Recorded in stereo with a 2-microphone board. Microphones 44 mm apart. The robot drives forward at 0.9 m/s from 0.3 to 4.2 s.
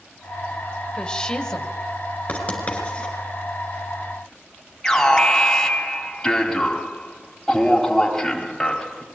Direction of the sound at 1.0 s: 20° left (ahead or behind).